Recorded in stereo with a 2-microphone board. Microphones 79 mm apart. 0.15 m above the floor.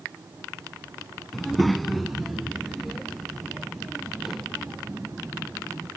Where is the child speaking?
5° left (ahead or behind); by 5.9 s centre (ahead or behind).